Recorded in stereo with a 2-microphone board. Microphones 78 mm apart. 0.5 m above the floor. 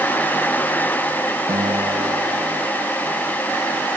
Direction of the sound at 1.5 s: 70° right (ahead or behind).